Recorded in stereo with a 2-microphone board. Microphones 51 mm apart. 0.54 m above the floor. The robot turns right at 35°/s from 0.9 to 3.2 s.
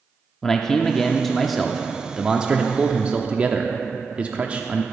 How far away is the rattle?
No rattle in this recording.